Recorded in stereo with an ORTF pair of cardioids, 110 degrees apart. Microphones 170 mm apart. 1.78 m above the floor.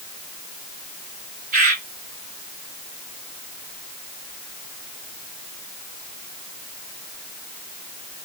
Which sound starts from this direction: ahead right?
A bird, at 1.5 s.